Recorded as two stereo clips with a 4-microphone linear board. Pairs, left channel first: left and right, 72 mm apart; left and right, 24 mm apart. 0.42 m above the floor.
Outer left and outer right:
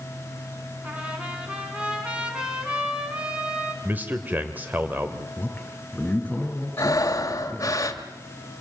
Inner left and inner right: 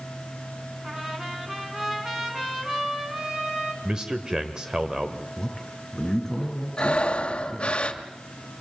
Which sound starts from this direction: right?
A man speaking, at 3.8 s.